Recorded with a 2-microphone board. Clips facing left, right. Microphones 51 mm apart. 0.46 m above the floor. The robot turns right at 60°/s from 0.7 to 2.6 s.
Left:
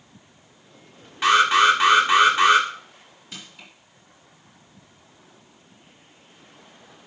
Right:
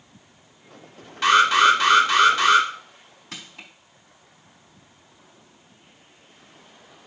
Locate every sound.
1.2 s an alarm: 10° left (ahead or behind), 1.9 m; by 2.7 s 15° left (ahead or behind), 1.9 m
3.3 s crushing: 75° right (ahead or behind), 3.5 m